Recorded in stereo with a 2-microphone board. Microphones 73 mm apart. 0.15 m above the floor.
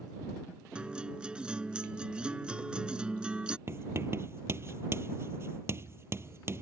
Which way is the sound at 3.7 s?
35° right (ahead or behind).